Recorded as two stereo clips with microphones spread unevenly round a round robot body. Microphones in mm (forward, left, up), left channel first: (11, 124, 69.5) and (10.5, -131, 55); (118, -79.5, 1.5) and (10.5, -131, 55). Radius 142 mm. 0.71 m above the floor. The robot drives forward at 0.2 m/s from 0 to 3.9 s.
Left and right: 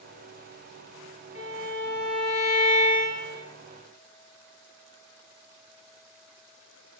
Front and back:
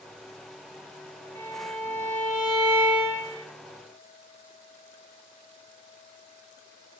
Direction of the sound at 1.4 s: 40° left.